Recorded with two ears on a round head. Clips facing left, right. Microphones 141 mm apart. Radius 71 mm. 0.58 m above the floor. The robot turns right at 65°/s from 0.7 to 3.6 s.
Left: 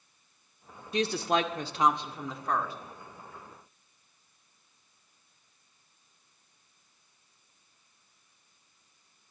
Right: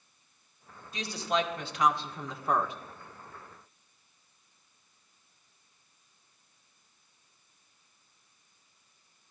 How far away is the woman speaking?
About 1.5 m.